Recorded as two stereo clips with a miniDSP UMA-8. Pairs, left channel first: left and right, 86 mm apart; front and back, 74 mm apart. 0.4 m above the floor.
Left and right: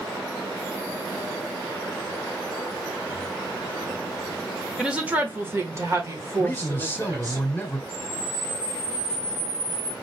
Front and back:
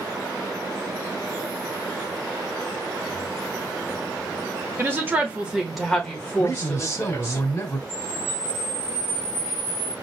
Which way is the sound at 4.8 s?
160° right.